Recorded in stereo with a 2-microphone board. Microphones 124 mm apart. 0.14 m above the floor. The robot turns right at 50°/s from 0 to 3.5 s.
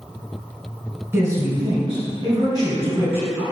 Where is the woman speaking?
140° right, 1.3 m; by 3.4 s 25° right, 1.3 m.